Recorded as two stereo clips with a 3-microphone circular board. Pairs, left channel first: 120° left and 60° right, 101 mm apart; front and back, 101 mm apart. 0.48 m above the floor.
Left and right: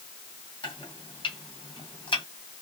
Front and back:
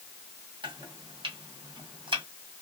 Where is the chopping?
155° left, 1.9 m.